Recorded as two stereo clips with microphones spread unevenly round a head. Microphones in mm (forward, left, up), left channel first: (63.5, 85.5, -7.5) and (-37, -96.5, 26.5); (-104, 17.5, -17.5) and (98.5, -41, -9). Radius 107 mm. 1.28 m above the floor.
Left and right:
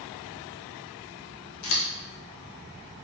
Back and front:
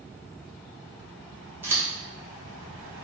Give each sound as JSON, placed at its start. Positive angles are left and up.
{"t": 1.6, "sound": "scissors", "azimuth_deg": 65, "distance_m": 0.8}